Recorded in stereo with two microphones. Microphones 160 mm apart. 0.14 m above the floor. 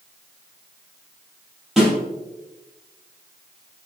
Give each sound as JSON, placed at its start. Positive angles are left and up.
{"t": 1.8, "sound": "a snare drum", "side_deg": -5, "distance_m": 4.0}